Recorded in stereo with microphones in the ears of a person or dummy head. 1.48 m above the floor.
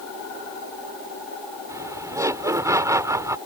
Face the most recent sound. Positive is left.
turn(degrees=-15)  # may be behind; listen again after turning